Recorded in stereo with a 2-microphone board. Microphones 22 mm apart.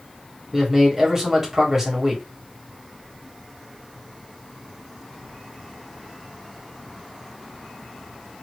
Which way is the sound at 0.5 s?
15° right (ahead or behind).